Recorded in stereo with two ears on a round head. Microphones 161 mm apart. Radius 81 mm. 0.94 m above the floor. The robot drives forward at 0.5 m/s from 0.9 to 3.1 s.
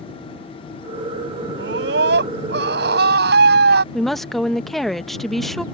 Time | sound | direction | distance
1.6 | a scream | 75° right (ahead or behind) | ?
3.9 | a woman speaking | centre (ahead or behind) | ?